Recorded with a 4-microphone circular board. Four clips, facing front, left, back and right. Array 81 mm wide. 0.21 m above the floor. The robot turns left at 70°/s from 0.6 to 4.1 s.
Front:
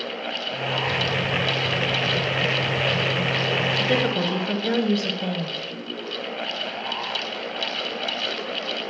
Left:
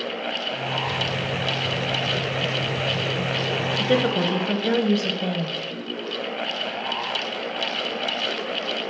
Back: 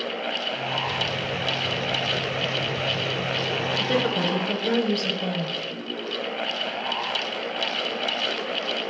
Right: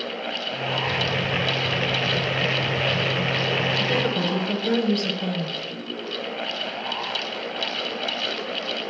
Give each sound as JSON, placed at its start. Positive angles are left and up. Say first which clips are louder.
{"t": 3.8, "sound": "a woman speaking", "louder": "left 3 dB, even", "azimuth_deg": 80, "distance_m": 1.0}